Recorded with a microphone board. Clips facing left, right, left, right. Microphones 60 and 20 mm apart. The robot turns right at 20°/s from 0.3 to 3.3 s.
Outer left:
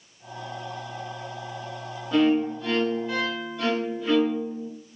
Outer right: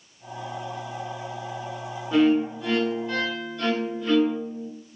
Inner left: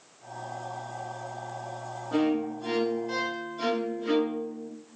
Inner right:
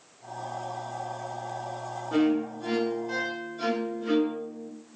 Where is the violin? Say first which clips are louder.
Outer right 1 dB, inner right 1 dB; 10° right (ahead or behind), 0.8 m; by 4.7 s 10° left (ahead or behind), 0.8 m.